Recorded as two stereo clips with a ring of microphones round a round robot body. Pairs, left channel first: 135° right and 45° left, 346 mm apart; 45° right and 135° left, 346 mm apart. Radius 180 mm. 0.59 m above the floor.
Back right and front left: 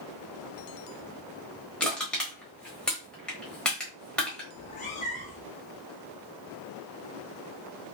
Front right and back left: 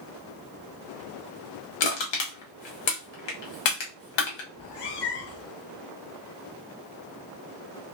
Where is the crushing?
45° right, 1.3 m.